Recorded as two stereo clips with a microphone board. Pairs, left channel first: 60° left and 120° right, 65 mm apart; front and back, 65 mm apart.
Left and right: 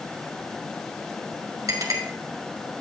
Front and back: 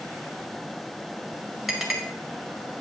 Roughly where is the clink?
Right.